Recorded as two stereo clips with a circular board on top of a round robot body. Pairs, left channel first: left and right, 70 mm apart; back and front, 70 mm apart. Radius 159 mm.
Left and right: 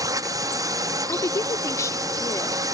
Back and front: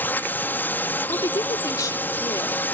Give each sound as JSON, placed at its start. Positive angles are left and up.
{"t": 0.0, "sound": "a drone", "azimuth_deg": -120}
{"t": 1.1, "sound": "a woman speaking", "azimuth_deg": 140}